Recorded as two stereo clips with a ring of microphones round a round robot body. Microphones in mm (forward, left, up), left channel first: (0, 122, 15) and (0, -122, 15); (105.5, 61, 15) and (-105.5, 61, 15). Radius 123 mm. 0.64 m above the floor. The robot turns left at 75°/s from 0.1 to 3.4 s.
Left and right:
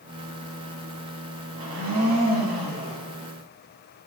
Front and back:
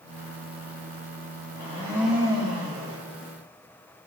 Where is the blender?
50° right, 5.5 m; by 3.0 s 155° right, 5.5 m.